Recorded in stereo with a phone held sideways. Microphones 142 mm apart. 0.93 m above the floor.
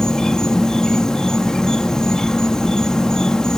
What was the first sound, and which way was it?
An insect, 5° left (ahead or behind).